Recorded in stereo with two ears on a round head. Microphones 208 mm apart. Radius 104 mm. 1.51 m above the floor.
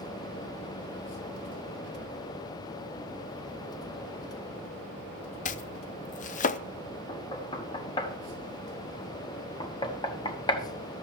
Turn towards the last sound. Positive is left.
turn(degrees=20)  # may be behind; listen again after turning